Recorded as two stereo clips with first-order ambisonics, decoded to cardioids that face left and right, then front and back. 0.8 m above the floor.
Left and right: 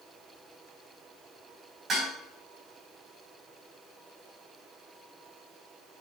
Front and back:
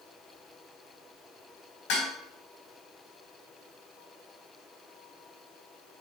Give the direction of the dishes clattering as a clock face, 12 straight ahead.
1 o'clock.